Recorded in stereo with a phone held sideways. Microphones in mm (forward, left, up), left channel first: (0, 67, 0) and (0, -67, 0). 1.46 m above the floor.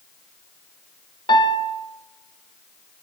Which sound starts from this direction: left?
A piano, at 1.3 s.